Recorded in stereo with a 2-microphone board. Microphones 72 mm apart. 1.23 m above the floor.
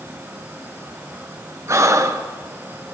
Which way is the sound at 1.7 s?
40° right (ahead or behind).